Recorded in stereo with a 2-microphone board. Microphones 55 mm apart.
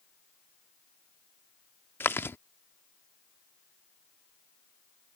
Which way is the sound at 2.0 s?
45° left (ahead or behind).